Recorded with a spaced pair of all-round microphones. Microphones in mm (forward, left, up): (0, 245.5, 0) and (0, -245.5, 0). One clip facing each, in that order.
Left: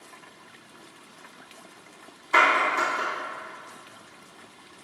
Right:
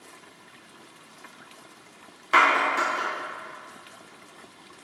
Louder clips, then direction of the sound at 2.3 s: Even; 85° right.